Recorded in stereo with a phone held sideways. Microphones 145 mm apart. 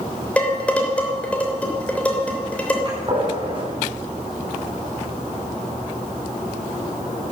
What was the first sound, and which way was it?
Dishes clattering, 10° left (ahead or behind).